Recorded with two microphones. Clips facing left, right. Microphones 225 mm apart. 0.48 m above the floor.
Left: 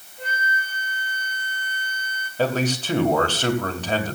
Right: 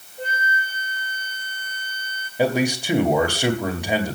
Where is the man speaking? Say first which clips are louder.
Right 2 dB; 10° right (ahead or behind), 2 m.